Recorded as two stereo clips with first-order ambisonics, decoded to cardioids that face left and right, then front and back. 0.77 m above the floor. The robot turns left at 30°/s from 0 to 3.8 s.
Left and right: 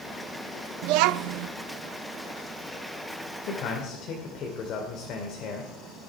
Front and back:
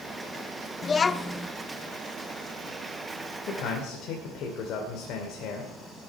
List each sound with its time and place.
0.8 s a child speaking: 65° right, 0.5 m; by 1.5 s 85° right, 0.5 m
3.5 s a man speaking: 55° left, 2.5 m; by 5.7 s 40° left, 2.5 m